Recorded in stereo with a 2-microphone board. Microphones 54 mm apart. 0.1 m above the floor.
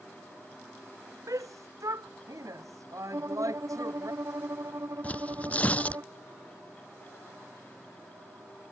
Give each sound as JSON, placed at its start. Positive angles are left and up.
{"t": 1.3, "sound": "a shout", "side_deg": -80}
{"t": 3.1, "sound": "a violin", "side_deg": -65}
{"t": 5.0, "sound": "tearing paper", "side_deg": 25}